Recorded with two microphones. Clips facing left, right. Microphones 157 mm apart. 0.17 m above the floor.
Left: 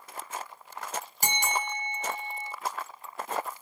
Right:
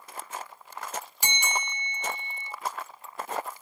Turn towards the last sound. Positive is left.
turn(degrees=45)  # may be behind; listen again after turning